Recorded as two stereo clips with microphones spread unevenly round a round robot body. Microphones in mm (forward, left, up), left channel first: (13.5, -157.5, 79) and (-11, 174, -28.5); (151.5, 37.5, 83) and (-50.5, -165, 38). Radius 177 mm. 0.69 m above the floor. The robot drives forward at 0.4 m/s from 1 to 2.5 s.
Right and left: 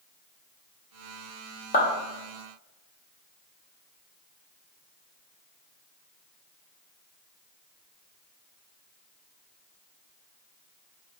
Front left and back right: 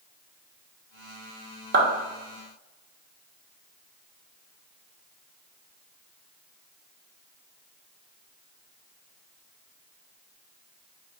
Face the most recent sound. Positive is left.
turn(degrees=-165)